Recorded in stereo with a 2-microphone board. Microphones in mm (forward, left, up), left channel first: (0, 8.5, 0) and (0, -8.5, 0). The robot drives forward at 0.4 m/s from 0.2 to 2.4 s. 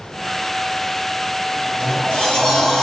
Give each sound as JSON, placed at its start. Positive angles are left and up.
{"t": 1.5, "sound": "a sliding door", "side_deg": 75, "distance_m": 7.5}